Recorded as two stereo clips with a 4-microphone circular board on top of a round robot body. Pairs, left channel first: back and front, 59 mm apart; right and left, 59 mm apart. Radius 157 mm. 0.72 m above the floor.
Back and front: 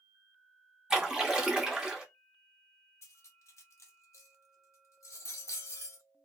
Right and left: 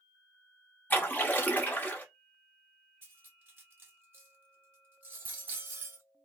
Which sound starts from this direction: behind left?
Cutlery clinking, at 3.0 s.